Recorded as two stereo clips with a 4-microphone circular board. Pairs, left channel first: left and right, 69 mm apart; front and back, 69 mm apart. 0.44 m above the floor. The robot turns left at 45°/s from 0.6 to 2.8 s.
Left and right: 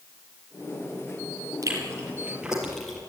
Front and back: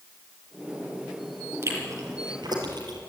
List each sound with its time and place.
1.6 s chewing: 130° right, 4 m; by 3.0 s 175° left, 4 m